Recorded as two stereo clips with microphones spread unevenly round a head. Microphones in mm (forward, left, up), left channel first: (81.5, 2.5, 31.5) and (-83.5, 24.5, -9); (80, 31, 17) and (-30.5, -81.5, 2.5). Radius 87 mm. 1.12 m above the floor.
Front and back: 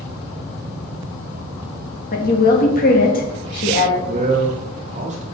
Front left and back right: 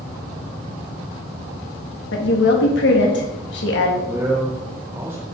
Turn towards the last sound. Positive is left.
turn(degrees=155)